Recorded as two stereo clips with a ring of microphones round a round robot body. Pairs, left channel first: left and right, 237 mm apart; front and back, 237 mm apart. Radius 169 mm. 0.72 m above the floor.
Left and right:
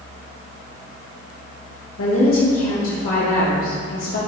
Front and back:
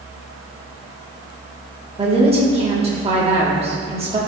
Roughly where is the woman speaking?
Behind left.